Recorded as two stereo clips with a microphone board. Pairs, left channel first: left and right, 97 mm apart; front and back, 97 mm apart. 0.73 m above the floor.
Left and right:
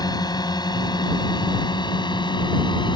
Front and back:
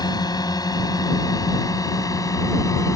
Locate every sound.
0.0 s a drone: 45° left; by 3.0 s 55° left